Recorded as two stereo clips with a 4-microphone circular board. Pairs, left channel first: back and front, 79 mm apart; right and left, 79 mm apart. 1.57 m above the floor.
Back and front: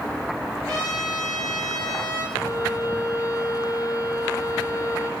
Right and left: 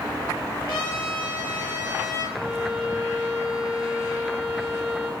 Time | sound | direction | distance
0.7 | a trumpet | 50° right | 4.5 m
2.3 | a violin | 175° left | 1.5 m